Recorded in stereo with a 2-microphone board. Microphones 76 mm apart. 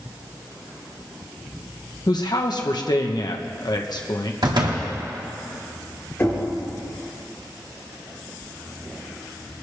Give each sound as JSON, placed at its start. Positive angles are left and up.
{"t": 2.1, "sound": "a man speaking", "side_deg": 65, "distance_m": 1.0}
{"t": 4.4, "sound": "a door slam", "side_deg": -75, "distance_m": 2.0}
{"t": 6.2, "sound": "knocking", "side_deg": 25, "distance_m": 4.0}